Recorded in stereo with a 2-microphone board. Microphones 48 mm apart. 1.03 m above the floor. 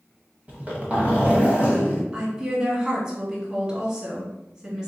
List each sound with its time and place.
0.5 s a zipper: 30° right (ahead or behind), 1.0 m
2.1 s a woman speaking: 25° right (ahead or behind), 1.4 m